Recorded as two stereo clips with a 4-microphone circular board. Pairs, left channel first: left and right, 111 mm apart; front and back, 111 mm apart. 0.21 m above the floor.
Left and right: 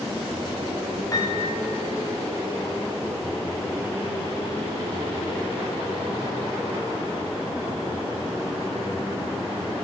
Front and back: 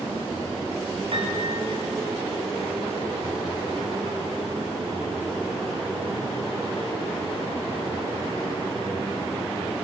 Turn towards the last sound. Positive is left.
turn(degrees=150)